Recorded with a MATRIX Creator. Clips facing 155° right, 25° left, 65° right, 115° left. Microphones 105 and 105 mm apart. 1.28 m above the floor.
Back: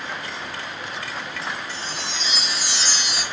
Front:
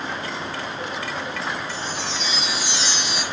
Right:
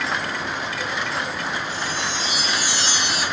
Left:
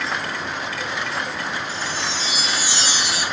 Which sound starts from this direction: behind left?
A chime, at 1.7 s.